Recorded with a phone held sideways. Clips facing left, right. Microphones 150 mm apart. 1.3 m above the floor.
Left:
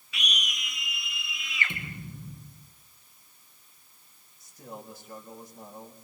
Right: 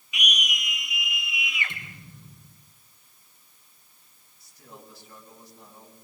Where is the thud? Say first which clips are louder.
Left 6 dB; 60° left (ahead or behind), 5.5 m.